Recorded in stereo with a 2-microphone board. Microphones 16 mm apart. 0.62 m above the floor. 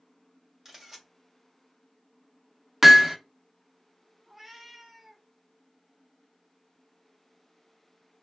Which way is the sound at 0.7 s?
30° right (ahead or behind).